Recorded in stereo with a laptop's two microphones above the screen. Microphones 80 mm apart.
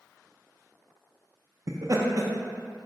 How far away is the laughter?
About 0.6 m.